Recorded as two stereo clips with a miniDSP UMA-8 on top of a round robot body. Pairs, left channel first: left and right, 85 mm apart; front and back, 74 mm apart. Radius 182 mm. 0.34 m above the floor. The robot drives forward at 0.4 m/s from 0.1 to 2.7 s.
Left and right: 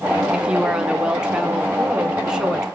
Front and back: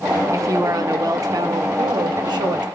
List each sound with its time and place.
0.3 s a woman speaking: 165° right, 1.0 m; by 2.6 s 175° right, 1.7 m